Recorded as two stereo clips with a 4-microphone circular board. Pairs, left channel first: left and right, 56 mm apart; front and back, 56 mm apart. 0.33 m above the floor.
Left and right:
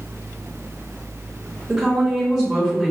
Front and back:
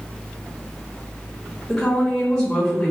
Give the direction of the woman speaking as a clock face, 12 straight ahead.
1 o'clock.